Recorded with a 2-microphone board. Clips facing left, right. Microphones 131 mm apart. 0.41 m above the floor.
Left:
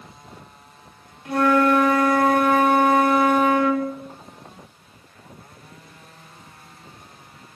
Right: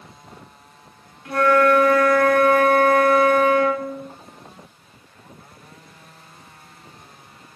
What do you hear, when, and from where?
1.2 s a flute: 20° left (ahead or behind), 1.3 m